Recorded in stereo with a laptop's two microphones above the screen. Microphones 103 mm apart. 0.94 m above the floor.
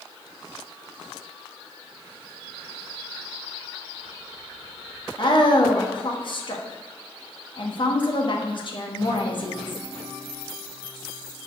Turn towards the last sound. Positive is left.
turn(degrees=50)  # may be behind; listen again after turning